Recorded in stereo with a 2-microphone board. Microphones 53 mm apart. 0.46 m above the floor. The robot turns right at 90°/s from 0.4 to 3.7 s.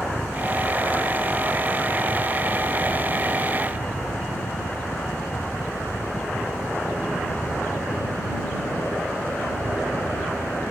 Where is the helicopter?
160° left; by 10.7 s 100° left.